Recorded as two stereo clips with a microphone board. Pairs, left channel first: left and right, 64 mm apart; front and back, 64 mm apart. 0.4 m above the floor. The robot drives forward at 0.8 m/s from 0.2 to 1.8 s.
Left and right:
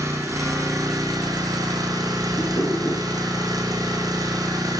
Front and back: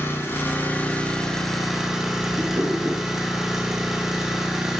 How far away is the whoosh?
About 5 m.